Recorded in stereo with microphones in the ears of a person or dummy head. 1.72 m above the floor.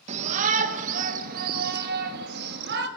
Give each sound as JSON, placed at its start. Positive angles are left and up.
{"t": 0.1, "sound": "a shout", "side_deg": -35, "distance_m": 2.0}